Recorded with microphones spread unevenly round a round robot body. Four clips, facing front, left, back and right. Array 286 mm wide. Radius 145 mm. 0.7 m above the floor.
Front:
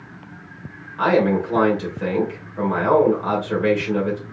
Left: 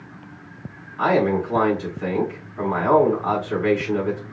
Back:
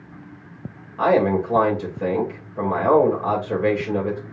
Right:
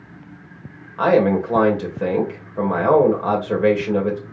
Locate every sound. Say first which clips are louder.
1.0 s a man speaking: right 3 dB, even; 105° right, 2.5 m